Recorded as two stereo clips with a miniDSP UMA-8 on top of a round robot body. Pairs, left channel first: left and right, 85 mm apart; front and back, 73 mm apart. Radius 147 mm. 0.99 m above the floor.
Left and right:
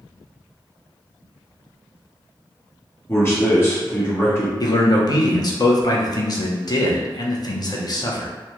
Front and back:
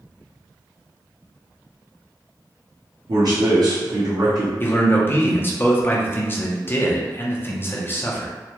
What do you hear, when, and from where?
3.1 s a man speaking: 150° left, 1.3 m
4.6 s a man speaking: 55° left, 0.9 m